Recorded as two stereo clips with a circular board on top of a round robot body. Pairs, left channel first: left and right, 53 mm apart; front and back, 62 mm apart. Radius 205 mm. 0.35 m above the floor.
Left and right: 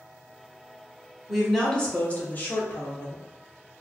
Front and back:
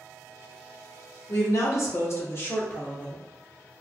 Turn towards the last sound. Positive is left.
turn(degrees=65)